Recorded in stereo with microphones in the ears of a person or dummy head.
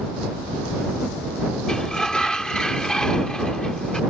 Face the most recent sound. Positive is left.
turn(degrees=5)  # may be behind; listen again after turning